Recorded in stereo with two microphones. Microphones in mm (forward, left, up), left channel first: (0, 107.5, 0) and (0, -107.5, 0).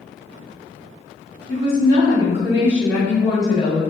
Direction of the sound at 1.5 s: 45° right (ahead or behind).